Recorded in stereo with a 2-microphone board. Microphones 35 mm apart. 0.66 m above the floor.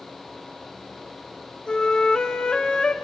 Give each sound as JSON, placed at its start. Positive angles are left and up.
{"t": 1.7, "sound": "a flute", "side_deg": 25, "distance_m": 0.9}